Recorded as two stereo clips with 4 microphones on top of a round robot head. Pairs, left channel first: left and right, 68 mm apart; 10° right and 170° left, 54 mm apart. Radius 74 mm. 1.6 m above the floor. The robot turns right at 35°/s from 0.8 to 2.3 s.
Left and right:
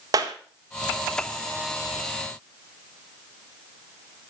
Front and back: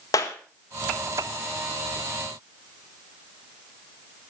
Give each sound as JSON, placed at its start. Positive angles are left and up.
{"t": 0.1, "sound": "a clap", "azimuth_deg": -45, "distance_m": 1.7}